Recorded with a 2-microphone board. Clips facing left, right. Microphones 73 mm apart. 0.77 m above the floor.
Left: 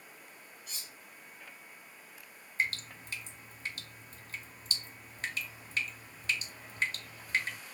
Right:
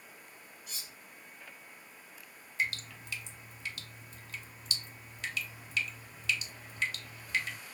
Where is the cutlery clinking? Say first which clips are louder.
Right 1 dB; 10° right (ahead or behind), 1.5 m.